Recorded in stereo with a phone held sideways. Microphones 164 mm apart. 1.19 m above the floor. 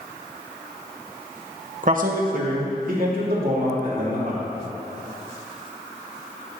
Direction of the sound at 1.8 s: 55° right (ahead or behind).